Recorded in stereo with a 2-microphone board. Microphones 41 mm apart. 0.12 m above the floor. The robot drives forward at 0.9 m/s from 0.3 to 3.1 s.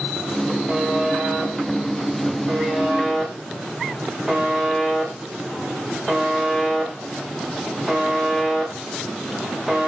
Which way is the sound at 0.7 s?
5° right (ahead or behind).